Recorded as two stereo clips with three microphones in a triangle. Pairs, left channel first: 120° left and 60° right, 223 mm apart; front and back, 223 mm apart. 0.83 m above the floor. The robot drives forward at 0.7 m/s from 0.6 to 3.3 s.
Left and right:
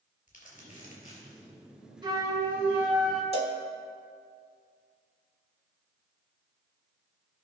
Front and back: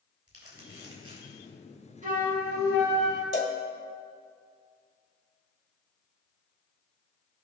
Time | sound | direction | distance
0.3 | crumpling | 175° left | 3.5 m
2.0 | a flute | 130° right | 1.4 m
3.3 | a cowbell | 125° right | 1.3 m